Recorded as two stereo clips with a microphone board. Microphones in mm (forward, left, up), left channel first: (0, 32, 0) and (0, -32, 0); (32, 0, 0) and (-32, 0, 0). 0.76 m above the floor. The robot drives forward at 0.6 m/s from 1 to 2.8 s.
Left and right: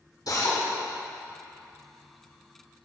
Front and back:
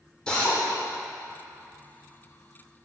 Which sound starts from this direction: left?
A drill, at 0.3 s.